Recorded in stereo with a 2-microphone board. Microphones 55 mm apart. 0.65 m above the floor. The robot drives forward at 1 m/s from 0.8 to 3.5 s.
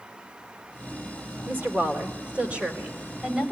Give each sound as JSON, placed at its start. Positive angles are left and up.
{"t": 1.5, "sound": "a woman speaking", "side_deg": -35, "distance_m": 1.6}